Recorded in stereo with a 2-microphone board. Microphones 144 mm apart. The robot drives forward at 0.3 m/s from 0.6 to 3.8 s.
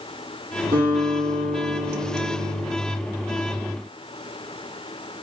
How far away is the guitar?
About 2.5 m.